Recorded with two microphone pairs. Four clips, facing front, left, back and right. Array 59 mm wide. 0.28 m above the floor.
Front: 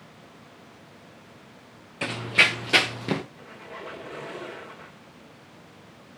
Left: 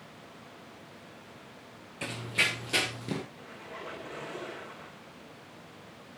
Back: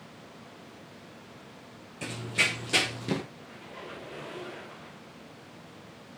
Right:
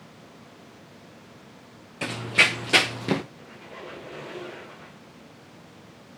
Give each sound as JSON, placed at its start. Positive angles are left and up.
{"t": 2.0, "sound": "running footsteps", "azimuth_deg": -30, "distance_m": 1.2}
{"t": 3.4, "sound": "a squeak", "azimuth_deg": 10, "distance_m": 5.0}